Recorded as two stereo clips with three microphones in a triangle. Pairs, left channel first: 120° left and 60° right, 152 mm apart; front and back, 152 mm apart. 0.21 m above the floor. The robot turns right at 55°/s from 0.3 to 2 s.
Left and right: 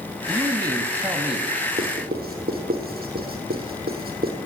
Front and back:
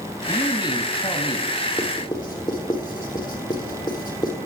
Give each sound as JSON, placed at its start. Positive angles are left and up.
{"t": 0.3, "sound": "a man speaking", "azimuth_deg": -40, "distance_m": 1.6}
{"t": 1.8, "sound": "writing", "azimuth_deg": -75, "distance_m": 3.5}